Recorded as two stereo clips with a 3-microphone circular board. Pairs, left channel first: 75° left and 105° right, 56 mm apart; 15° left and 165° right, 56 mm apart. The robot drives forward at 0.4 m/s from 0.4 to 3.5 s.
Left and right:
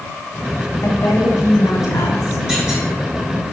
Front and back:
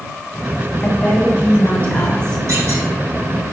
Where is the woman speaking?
65° left, 1.8 m; by 2.4 s 90° left, 1.7 m.